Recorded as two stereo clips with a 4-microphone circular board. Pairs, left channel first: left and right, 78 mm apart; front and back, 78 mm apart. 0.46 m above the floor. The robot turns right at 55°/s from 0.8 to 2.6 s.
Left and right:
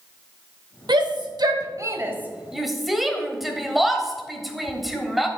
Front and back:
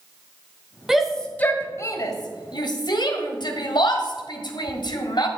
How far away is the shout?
About 1.7 m.